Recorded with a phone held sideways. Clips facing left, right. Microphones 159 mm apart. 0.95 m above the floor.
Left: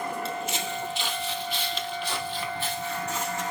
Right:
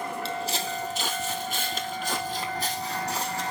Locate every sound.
0.2 s footsteps: 30° right (ahead or behind), 1.3 m; by 3.5 s 35° right (ahead or behind), 2.5 m